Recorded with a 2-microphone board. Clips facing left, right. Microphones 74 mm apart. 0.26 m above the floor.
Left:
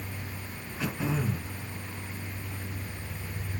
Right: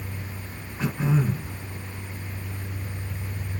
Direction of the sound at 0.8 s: 35° right (ahead or behind).